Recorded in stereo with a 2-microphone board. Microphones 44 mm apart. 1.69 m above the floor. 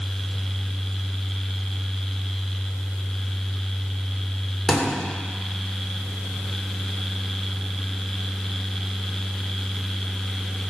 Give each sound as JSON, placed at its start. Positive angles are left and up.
{"t": 4.7, "sound": "a thud", "side_deg": 5, "distance_m": 2.5}